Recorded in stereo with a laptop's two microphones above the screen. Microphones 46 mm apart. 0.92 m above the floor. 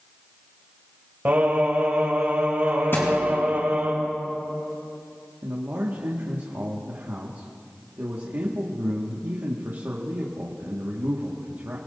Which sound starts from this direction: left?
A thud, at 2.9 s.